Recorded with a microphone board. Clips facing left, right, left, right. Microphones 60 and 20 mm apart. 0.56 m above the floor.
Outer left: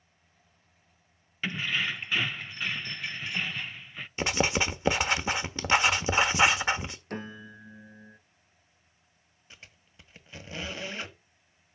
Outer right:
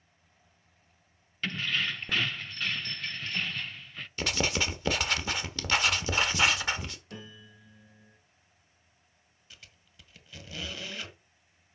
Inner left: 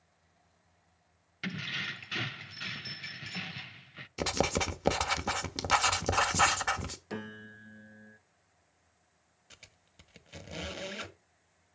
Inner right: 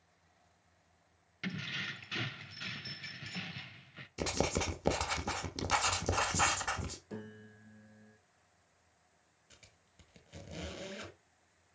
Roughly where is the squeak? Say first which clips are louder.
Outer left 2 dB, inner left 6 dB; left.